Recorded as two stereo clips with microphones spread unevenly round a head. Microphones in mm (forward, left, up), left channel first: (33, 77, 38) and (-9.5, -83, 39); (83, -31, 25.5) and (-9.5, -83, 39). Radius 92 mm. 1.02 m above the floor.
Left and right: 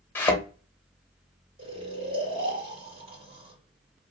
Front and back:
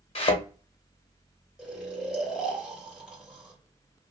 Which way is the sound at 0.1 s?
5° right.